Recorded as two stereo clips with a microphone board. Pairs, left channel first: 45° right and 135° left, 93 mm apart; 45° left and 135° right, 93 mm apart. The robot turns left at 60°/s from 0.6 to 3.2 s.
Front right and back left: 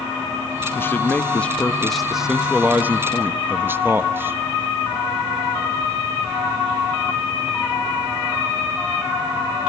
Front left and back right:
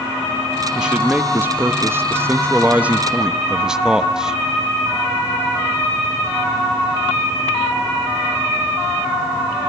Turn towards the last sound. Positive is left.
turn(degrees=150)